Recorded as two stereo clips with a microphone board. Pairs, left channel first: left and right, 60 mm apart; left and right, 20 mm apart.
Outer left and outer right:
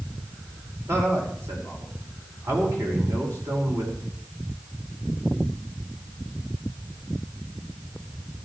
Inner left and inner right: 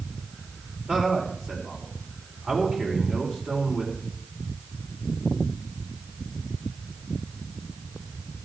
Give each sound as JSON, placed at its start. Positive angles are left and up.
{"t": 0.9, "sound": "a man speaking", "side_deg": -55, "distance_m": 5.0}